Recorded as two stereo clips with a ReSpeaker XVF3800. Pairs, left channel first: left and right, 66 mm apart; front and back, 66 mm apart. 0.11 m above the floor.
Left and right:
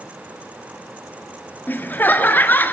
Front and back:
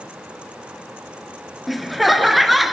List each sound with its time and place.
1.7 s laughter: 90° left, 1.2 m